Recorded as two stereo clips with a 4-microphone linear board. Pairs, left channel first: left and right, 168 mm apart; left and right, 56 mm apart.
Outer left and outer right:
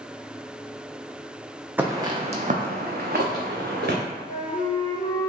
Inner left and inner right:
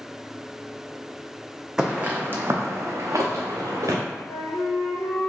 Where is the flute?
55° left (ahead or behind), 1.6 m.